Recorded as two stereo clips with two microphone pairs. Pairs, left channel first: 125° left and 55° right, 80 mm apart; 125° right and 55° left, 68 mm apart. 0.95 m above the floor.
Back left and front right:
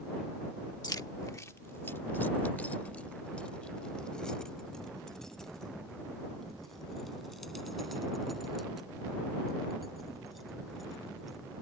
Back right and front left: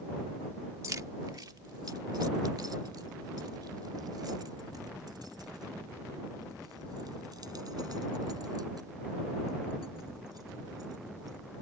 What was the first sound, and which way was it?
Keys jangling, 95° left.